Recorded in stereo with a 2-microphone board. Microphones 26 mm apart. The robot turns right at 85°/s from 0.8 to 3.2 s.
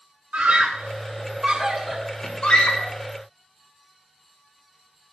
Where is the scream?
70° right (ahead or behind), 3 m; by 2.9 s 70° left (ahead or behind), 3 m.